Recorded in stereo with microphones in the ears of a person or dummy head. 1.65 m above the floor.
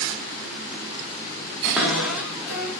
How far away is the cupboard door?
About 0.8 m.